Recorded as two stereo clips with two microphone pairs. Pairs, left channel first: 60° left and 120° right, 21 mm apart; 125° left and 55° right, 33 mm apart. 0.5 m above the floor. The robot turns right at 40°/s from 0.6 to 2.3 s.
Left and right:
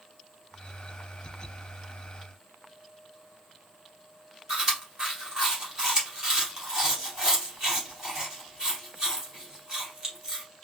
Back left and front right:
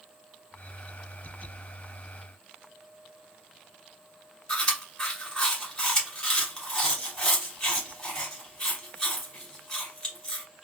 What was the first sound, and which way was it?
Chewing, 170° right.